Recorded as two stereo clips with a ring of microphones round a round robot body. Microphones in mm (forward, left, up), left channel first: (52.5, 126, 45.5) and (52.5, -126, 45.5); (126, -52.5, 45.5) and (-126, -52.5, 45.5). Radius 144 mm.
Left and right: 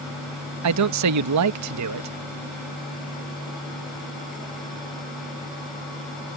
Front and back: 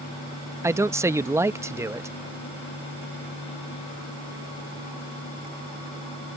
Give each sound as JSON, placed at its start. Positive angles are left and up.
{"t": 0.6, "sound": "a man speaking", "azimuth_deg": -100}